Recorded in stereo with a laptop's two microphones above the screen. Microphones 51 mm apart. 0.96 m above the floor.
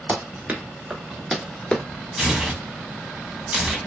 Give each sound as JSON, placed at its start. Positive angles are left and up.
{"t": 0.1, "sound": "running footsteps", "side_deg": -40, "distance_m": 1.2}
{"t": 2.2, "sound": "tearing paper", "side_deg": -10, "distance_m": 1.0}